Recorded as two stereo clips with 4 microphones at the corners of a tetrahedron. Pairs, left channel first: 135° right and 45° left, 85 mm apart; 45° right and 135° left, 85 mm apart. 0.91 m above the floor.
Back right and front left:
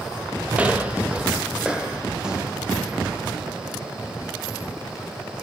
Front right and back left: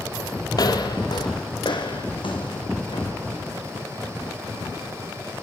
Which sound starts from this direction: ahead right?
Footsteps, at 0.5 s.